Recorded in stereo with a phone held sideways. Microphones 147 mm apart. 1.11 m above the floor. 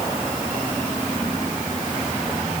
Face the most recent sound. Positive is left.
No sound to turn to.